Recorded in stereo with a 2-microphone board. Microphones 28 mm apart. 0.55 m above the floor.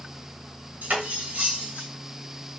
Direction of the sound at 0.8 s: 80° right.